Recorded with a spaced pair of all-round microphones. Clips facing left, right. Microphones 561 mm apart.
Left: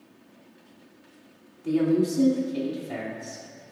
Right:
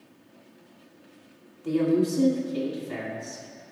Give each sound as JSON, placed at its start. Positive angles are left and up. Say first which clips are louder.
{"t": 1.6, "sound": "a woman speaking", "louder": "left 1 dB", "side_deg": 5, "distance_m": 2.5}